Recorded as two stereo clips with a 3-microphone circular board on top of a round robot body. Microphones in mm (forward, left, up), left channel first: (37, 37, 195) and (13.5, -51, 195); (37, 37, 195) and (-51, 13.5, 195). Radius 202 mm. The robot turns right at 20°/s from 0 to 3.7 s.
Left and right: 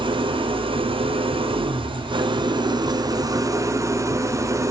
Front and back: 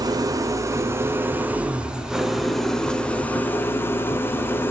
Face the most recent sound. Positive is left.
turn(degrees=-50)